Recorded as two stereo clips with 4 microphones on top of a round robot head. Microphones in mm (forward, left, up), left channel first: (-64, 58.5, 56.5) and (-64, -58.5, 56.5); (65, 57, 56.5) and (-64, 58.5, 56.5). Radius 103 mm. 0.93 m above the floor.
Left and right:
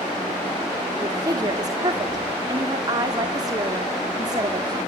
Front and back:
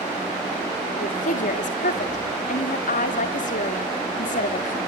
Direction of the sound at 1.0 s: 25° right.